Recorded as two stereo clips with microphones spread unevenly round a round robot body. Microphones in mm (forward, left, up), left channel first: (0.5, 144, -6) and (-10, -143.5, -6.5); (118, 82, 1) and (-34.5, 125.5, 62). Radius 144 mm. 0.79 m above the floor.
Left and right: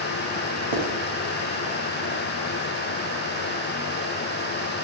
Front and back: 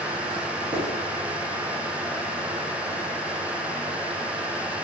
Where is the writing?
105° right, 0.7 m.